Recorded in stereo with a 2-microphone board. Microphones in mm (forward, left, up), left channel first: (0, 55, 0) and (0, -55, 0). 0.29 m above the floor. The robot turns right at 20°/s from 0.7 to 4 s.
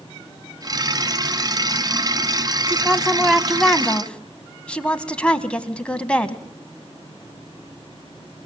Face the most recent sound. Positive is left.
turn(degrees=10)  # may be behind; listen again after turning